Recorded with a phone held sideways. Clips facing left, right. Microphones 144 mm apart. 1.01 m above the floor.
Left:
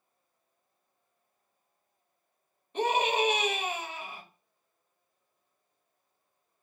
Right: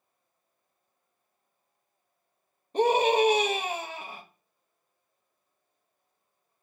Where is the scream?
35° right (ahead or behind), 0.8 m.